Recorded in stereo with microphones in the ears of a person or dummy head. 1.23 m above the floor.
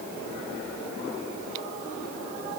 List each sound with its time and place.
Only background noise.